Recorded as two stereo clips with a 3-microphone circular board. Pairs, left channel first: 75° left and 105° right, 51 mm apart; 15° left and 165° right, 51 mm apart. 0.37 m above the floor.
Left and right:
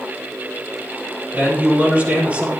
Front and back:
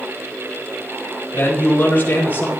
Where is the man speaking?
40° right, 7.5 m.